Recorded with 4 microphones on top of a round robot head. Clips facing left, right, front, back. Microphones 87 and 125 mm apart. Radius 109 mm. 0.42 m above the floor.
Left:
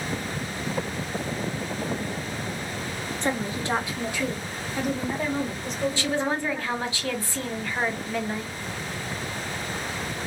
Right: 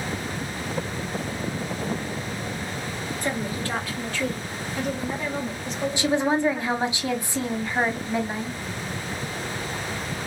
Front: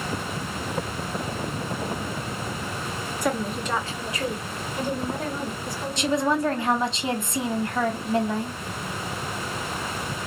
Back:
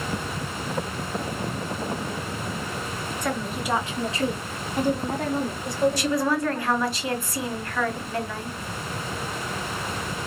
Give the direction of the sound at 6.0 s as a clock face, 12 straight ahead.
1 o'clock.